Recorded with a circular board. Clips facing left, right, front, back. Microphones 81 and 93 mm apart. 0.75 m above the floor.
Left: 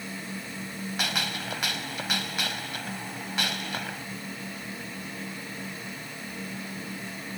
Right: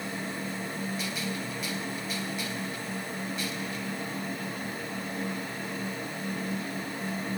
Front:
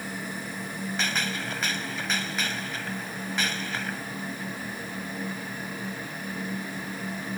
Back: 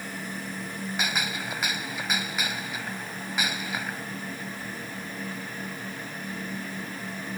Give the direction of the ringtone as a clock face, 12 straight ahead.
I don't hear a ringtone.